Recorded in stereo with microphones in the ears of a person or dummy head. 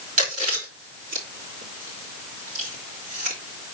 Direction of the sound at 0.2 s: 40° right (ahead or behind).